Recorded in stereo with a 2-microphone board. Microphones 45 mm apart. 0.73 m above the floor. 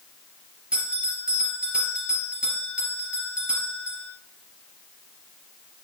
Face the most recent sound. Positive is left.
turn(degrees=-25)  # may be behind; listen again after turning